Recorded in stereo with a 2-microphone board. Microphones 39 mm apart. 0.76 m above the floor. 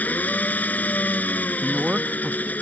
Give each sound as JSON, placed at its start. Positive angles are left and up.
{"t": 0.0, "sound": "an engine running", "side_deg": 45}
{"t": 1.6, "sound": "a woman speaking", "side_deg": -25}